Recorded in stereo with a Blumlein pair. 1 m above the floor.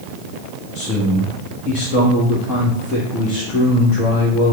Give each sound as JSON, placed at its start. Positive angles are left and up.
{"t": 0.8, "sound": "a man speaking", "azimuth_deg": 35, "distance_m": 1.1}